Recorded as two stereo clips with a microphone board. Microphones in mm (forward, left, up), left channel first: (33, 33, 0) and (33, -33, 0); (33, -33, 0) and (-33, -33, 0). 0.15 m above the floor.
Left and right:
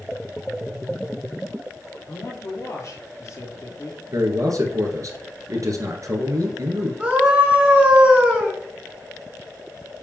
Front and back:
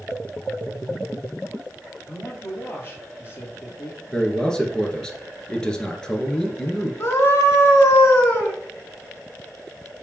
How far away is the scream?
About 2.5 m.